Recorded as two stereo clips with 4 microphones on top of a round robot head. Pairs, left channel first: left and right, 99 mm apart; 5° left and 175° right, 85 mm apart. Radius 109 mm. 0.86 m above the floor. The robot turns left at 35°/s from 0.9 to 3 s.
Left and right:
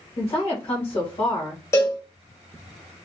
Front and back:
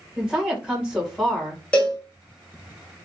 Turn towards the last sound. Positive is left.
turn(degrees=20)